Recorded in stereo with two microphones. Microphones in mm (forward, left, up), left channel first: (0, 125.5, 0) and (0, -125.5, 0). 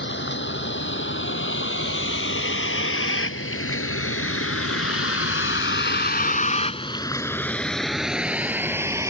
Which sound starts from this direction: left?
A vehicle, at 0.0 s.